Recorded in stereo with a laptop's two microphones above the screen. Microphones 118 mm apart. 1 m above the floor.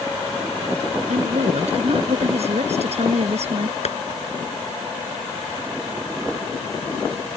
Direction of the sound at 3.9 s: 70° left (ahead or behind).